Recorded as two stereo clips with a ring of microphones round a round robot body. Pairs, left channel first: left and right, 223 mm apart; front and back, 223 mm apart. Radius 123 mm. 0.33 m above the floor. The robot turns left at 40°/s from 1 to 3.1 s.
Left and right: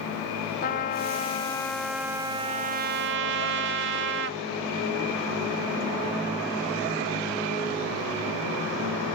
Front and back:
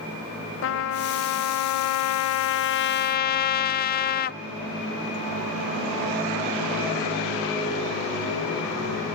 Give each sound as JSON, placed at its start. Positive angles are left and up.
{"t": 0.6, "sound": "a trumpet", "azimuth_deg": 35, "distance_m": 0.5}